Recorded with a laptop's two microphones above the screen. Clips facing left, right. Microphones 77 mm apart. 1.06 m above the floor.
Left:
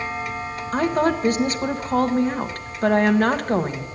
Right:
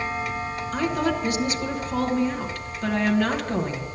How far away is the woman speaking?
About 1.1 m.